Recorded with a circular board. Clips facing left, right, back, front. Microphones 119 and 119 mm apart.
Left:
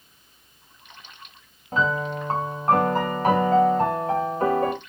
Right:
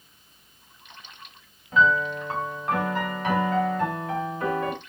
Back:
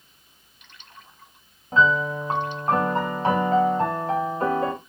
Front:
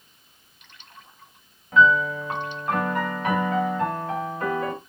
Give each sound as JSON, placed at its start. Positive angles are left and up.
{"t": 1.7, "sound": "a piano", "azimuth_deg": 130, "distance_m": 2.0}